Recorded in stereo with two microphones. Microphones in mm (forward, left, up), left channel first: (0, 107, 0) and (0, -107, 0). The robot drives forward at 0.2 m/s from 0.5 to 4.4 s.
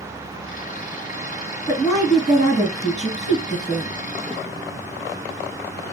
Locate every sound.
1.7 s a woman speaking: 20° left (ahead or behind), 1.6 m